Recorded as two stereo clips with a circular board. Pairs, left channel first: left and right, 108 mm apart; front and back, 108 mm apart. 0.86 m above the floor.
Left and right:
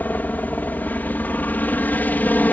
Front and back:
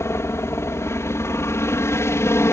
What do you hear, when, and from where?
0.0 s a helicopter: 35° left